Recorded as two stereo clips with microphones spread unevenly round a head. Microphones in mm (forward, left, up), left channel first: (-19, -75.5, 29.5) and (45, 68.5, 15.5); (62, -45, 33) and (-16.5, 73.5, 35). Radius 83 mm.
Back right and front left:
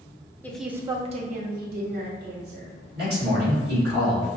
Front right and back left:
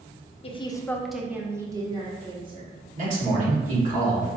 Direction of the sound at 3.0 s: 90° left.